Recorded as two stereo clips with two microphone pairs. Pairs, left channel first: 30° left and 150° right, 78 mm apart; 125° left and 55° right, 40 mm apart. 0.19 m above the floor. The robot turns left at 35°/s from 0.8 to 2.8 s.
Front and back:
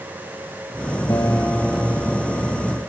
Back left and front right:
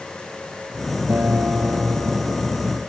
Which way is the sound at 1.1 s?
15° right.